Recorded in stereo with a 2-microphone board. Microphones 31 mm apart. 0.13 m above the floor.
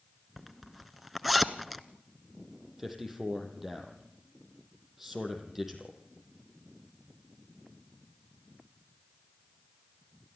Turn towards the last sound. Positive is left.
turn(degrees=-10)  # may be behind; listen again after turning